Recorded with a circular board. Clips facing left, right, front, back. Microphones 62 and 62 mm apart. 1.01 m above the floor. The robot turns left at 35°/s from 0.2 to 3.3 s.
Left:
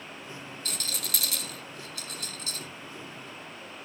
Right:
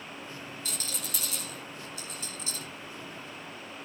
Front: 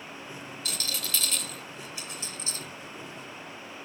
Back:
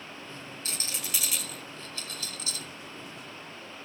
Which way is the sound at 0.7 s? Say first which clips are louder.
Left 4 dB, front 3 dB; 125° left.